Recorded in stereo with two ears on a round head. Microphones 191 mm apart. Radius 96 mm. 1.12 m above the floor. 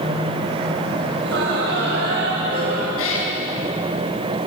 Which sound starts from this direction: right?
Laughter, at 1.2 s.